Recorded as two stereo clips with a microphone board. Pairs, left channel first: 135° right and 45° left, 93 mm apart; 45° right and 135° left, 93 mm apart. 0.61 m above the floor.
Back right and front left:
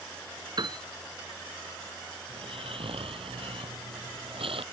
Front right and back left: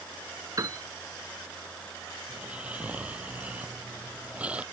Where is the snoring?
60° left.